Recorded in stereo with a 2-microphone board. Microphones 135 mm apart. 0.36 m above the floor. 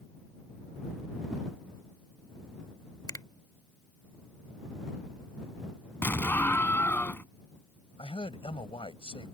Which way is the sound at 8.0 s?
45° left (ahead or behind).